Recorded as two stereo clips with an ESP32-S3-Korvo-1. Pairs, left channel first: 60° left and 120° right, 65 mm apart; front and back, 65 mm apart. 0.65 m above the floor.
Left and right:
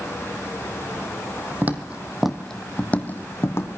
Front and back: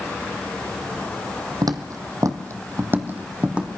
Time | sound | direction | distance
1.6 | footsteps | straight behind | 1.7 m